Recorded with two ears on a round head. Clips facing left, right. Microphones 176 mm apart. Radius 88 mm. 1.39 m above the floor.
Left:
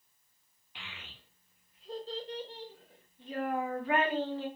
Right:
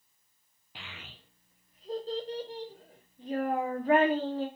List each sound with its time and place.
0.8 s a child speaking: 35° right (ahead or behind), 0.8 m